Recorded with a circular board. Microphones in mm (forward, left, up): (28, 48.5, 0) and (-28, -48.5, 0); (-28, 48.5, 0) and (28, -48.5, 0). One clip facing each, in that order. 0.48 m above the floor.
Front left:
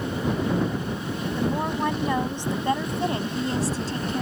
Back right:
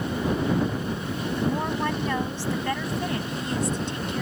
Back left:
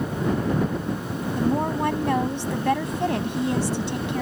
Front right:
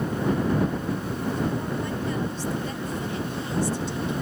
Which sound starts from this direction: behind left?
A woman speaking, at 1.4 s.